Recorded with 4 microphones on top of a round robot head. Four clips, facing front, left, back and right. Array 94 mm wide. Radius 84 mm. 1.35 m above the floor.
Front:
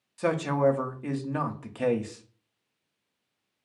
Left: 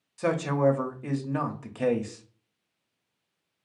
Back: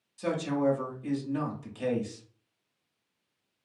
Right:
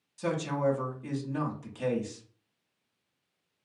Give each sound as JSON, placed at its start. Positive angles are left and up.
{"t": 0.2, "sound": "a man speaking", "azimuth_deg": 40, "distance_m": 0.6}